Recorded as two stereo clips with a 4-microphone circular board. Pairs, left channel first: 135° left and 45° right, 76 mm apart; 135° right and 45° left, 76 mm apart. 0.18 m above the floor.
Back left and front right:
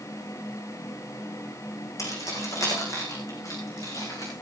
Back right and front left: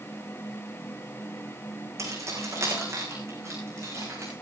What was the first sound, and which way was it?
Keys jangling, 90° left.